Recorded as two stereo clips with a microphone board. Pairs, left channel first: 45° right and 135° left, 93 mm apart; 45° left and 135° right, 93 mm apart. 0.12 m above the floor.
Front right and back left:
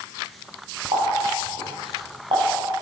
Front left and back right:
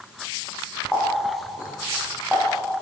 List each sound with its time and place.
0.9 s a running tap: 150° left, 6.5 m